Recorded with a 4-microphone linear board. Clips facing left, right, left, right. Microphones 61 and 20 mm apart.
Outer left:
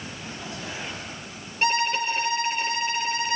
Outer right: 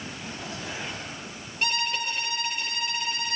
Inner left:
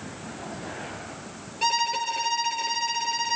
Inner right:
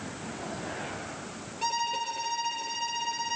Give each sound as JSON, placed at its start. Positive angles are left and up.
{"t": 1.6, "sound": "a violin", "side_deg": 40, "distance_m": 5.5}